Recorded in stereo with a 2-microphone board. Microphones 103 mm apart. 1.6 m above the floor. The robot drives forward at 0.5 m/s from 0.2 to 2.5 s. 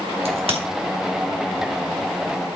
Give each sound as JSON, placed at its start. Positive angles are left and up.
{"t": 0.2, "sound": "a crack", "side_deg": -65, "distance_m": 3.0}